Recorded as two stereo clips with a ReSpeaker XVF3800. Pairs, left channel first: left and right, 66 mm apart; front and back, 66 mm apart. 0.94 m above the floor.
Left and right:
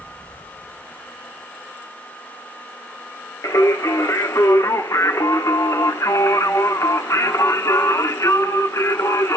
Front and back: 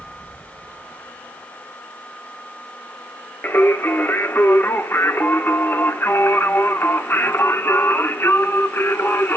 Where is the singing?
50° left, 1.2 m.